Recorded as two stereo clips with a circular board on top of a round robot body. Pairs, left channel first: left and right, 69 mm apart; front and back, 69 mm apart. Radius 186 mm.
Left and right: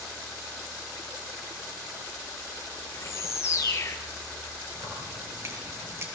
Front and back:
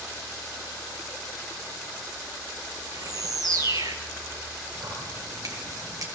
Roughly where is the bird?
Behind left.